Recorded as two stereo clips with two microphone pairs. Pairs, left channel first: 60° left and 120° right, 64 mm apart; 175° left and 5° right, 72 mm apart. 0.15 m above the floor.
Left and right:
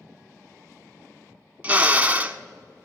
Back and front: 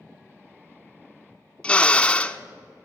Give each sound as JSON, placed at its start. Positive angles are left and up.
{"t": 1.6, "sound": "a drill", "azimuth_deg": -125, "distance_m": 0.5}